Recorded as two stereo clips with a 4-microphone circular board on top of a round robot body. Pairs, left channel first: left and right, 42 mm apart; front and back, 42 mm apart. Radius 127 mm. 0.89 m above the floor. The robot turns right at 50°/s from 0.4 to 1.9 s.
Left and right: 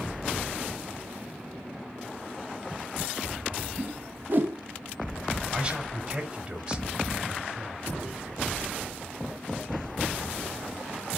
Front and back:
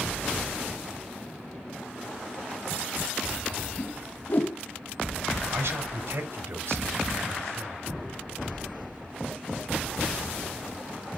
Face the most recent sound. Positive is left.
turn(degrees=-160)